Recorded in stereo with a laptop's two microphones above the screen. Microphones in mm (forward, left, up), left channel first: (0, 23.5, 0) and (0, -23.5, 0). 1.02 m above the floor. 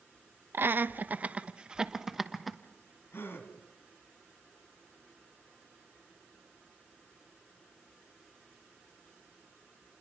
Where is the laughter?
55° right (ahead or behind), 1.0 m; by 2.6 s centre (ahead or behind), 1.2 m.